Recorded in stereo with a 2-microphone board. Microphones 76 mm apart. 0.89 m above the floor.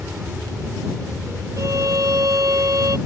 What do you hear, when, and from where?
0.0 s an aircraft: 25° right (ahead or behind)
1.6 s a violin: 55° right (ahead or behind)